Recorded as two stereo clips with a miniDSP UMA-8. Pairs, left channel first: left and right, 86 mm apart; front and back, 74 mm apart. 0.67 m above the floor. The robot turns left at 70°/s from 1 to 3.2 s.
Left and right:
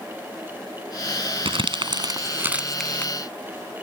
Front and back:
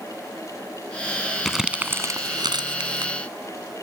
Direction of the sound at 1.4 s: 85° right.